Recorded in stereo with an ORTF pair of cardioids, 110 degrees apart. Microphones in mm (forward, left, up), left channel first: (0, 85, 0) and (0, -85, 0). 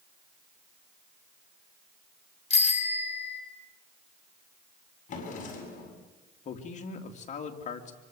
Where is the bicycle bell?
40° left, 4.5 m.